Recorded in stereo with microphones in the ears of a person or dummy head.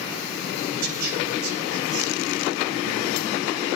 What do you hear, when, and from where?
0.7 s a man speaking: 50° right (ahead or behind), 4 m